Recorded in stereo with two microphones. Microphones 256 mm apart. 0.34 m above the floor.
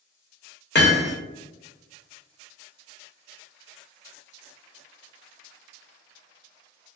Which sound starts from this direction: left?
Hammering, at 0.8 s.